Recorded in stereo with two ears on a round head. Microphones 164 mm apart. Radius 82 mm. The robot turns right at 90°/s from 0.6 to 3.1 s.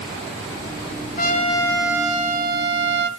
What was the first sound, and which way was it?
A trumpet, 120° left.